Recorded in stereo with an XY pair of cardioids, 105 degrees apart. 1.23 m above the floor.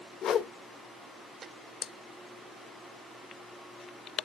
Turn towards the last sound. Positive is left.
turn(degrees=70)